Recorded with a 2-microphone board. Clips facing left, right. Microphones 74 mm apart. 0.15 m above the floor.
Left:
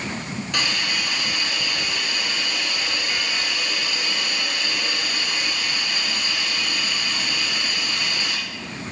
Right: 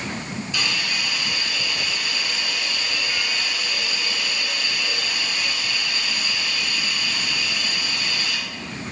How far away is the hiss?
About 2.5 m.